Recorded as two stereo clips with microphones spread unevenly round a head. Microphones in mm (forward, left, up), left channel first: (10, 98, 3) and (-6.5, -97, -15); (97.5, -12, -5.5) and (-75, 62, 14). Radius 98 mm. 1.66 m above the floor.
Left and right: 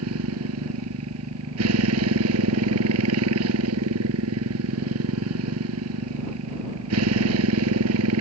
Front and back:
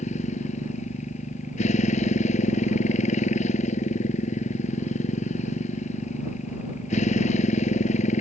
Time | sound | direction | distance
0.0 | a motorcycle | 80° right | ?